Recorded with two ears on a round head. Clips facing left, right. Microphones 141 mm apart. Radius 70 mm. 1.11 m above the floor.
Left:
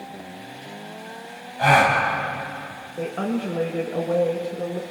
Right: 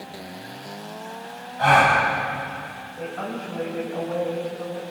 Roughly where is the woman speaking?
Left.